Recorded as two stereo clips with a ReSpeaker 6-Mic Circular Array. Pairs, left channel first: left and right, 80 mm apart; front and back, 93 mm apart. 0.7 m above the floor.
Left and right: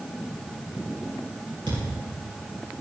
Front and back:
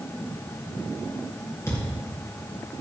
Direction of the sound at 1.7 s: 60° right.